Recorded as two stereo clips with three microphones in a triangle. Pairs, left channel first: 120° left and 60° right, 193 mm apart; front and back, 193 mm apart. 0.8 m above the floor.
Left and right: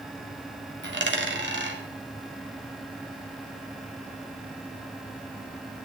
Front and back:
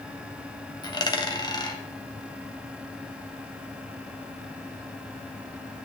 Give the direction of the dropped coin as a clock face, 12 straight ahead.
2 o'clock.